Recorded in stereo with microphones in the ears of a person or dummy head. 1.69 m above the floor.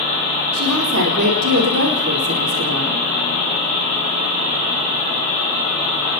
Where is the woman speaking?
80° right, 4.5 m.